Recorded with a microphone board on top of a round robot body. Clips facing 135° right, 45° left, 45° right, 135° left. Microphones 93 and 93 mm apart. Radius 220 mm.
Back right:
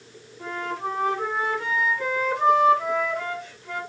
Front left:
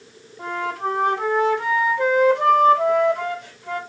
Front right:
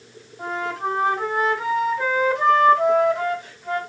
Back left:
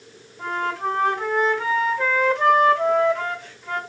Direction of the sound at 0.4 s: 35° left.